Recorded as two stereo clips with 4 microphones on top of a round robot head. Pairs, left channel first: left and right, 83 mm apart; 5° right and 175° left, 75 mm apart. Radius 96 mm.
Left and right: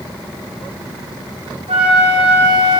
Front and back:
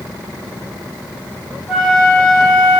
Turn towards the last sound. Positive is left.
turn(degrees=-100)